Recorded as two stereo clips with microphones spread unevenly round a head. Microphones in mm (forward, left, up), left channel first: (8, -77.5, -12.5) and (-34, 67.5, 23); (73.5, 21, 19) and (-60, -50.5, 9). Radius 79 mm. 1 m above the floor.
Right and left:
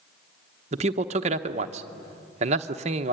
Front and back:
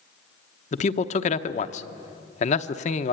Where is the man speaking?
55° left, 1.0 m.